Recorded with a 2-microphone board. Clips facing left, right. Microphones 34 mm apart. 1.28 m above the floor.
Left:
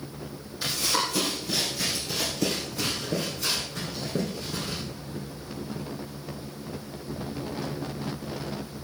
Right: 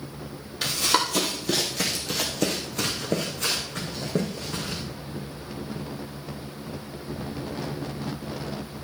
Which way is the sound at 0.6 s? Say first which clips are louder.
Right 3 dB; 60° right (ahead or behind).